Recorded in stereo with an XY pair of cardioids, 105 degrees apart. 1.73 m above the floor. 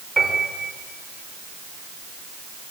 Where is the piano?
15° right, 8 m.